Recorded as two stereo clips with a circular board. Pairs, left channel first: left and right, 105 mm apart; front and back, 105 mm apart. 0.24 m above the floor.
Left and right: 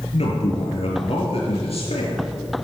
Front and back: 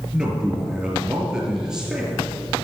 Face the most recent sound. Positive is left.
turn(degrees=95)